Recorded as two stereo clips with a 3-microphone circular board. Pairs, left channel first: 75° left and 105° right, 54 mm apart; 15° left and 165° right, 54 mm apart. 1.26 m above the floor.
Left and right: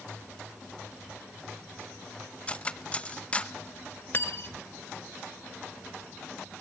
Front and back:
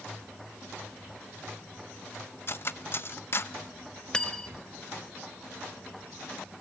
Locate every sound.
2.5 s cutlery clinking: 15° left, 0.6 m
4.1 s cutlery clinking: 80° left, 0.6 m